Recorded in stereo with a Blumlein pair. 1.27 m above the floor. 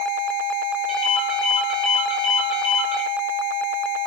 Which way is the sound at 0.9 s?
30° left.